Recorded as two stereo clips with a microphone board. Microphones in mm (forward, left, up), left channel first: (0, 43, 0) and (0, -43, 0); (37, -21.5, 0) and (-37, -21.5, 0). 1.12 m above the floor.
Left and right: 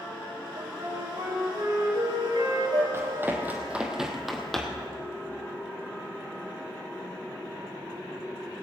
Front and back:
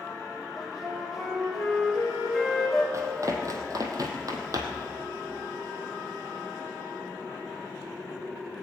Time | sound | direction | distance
0.6 | a flute | 95° right | 3.5 m
2.9 | running footsteps | 145° right | 2.0 m